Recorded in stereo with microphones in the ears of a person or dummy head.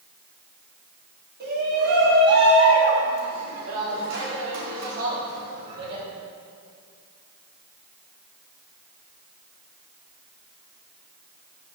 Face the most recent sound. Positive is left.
turn(degrees=-70)  # may be behind; listen again after turning